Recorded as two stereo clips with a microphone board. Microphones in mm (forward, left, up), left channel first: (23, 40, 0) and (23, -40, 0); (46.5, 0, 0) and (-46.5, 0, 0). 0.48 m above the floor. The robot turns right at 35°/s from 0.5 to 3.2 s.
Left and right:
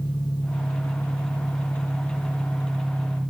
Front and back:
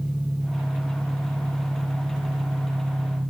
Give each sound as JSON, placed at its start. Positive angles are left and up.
{"t": 0.0, "sound": "an engine running", "azimuth_deg": 95, "distance_m": 4.0}